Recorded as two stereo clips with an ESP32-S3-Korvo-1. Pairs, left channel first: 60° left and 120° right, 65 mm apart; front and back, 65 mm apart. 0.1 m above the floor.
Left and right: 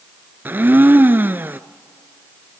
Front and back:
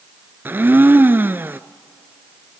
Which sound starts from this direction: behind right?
A blender, at 0.5 s.